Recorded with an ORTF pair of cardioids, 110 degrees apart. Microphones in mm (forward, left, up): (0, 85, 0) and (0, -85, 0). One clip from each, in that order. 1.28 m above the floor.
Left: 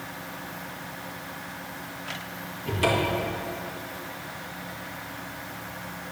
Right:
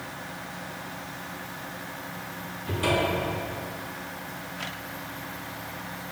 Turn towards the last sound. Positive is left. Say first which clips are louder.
# left 1 dB
turn(degrees=50)